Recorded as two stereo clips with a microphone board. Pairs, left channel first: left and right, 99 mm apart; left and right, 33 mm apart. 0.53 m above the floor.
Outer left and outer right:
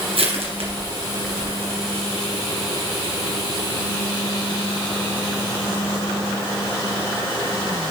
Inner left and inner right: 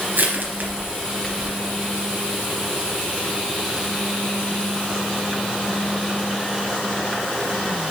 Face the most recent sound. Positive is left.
turn(degrees=-85)